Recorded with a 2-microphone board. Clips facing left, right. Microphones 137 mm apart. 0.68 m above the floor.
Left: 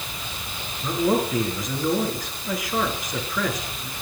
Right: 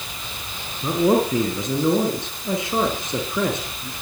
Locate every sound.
0.8 s a man speaking: 30° right (ahead or behind), 7.5 m